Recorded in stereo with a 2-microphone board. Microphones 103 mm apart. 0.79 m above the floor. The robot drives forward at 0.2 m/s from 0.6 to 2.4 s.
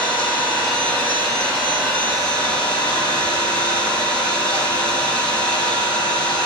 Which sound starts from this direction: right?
An engine running, at 0.0 s.